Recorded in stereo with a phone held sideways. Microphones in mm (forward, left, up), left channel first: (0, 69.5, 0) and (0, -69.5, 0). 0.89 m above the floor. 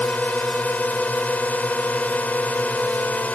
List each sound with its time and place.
0.0 s a drone: 10° left (ahead or behind)